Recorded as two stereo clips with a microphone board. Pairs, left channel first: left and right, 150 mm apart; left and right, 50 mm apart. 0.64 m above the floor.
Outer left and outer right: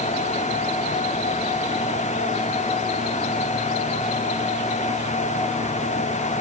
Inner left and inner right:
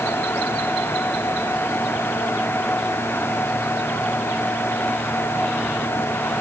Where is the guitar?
No guitar in this recording.